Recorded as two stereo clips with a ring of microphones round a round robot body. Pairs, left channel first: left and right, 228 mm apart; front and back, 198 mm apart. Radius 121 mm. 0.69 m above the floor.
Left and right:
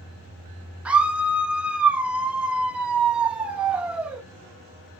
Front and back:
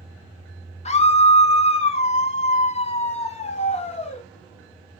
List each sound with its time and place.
0.8 s a scream: 10° right, 1.0 m